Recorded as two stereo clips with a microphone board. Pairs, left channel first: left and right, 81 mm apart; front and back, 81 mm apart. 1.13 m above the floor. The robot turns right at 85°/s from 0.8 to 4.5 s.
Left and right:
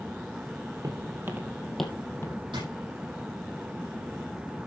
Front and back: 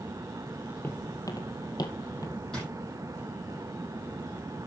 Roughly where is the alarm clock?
No alarm clock in this recording.